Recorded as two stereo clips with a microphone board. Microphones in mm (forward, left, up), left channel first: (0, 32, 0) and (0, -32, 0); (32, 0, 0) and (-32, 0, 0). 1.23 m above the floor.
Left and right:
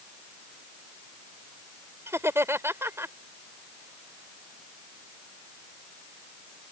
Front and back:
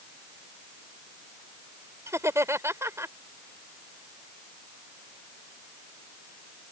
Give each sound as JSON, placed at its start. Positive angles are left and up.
{"t": 2.1, "sound": "laughter", "azimuth_deg": -135}